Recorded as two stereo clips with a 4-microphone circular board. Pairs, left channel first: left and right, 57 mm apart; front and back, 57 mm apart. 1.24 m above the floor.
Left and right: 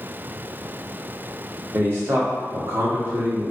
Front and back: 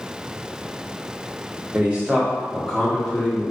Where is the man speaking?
125° right, 0.9 m; by 3.5 s 55° right, 1.1 m.